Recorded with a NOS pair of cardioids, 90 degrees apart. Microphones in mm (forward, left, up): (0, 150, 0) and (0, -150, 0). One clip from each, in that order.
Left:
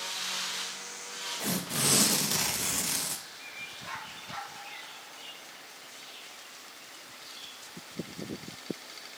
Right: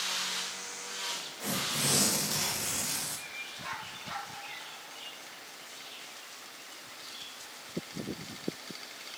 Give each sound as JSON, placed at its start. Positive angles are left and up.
{"t": 1.4, "sound": "tearing paper", "azimuth_deg": 40, "distance_m": 2.0}